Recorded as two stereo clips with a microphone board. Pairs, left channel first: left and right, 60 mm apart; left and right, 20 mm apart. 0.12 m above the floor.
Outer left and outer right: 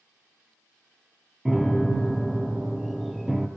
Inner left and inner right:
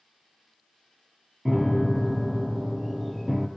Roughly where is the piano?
Centre.